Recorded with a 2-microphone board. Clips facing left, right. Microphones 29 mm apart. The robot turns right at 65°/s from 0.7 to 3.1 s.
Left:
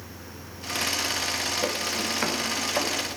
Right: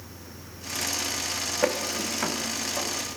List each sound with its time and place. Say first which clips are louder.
1.6 s footsteps: right 1 dB; 25° right (ahead or behind), 1.2 m; by 3.2 s 75° left (ahead or behind), 3 m